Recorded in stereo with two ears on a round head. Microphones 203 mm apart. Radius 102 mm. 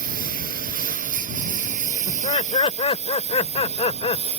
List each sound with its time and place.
0.0 s a lawn mower: 40° right (ahead or behind); by 4.4 s 25° right (ahead or behind)
2.1 s laughter: 25° left (ahead or behind)